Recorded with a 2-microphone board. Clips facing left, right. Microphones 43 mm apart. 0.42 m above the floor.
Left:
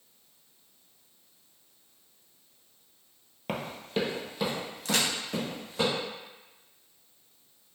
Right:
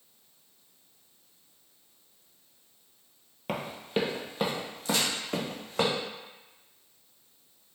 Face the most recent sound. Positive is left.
turn(degrees=75)  # may be behind; listen again after turning